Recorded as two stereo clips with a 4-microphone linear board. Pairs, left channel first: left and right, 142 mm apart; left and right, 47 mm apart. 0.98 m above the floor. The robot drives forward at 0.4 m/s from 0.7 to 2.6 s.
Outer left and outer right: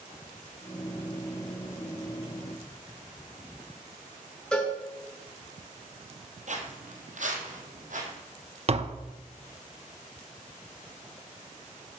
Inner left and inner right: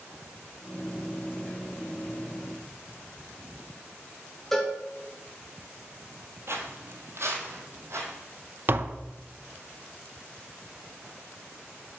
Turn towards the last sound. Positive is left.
turn(degrees=-45)  # may be behind; listen again after turning